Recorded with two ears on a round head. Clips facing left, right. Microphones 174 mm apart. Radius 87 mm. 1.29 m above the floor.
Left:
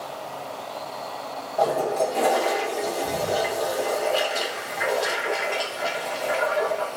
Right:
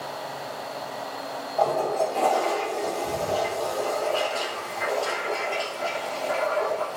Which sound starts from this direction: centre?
A toilet flushing, at 1.6 s.